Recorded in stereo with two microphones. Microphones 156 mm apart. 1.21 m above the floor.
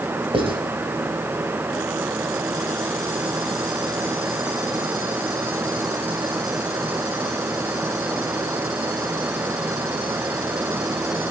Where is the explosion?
I don't hear an explosion.